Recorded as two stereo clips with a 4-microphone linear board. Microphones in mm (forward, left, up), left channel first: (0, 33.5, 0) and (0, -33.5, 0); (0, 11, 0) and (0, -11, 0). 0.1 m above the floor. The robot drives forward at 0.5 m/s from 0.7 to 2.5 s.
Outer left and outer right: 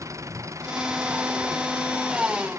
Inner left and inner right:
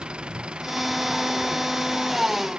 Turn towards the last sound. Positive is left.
turn(degrees=-50)  # may be behind; listen again after turning